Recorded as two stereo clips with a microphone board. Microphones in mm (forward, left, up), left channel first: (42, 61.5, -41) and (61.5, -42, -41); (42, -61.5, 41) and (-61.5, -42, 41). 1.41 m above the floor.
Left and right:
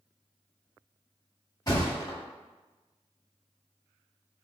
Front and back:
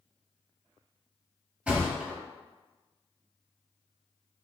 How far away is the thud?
About 1.0 m.